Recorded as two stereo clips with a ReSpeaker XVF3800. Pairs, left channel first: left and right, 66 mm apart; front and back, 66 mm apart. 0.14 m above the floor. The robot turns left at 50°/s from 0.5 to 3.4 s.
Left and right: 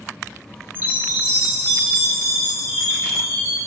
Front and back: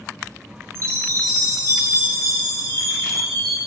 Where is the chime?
145° right, 3 m; by 3.6 s 85° left, 3 m.